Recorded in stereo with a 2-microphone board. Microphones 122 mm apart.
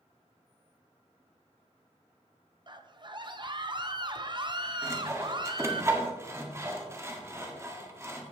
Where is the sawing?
20° right (ahead or behind), 1.6 m.